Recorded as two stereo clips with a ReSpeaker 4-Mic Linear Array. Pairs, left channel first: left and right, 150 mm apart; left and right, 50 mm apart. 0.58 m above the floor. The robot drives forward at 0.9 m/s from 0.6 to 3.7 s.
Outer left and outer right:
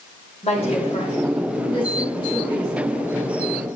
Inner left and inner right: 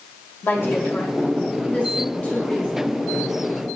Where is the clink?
No clink in this recording.